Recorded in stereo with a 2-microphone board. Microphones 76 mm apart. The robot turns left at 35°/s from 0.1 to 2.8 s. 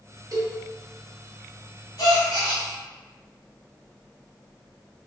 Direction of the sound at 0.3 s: 50° right (ahead or behind).